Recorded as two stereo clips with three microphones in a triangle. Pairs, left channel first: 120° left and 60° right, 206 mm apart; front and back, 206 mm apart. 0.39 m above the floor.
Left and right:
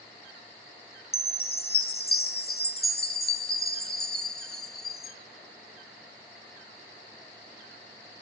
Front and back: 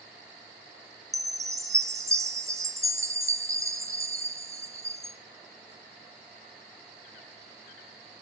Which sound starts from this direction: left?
A chime, at 1.1 s.